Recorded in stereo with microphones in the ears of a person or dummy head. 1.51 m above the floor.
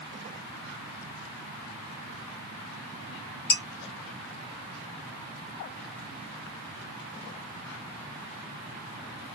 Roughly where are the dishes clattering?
Left.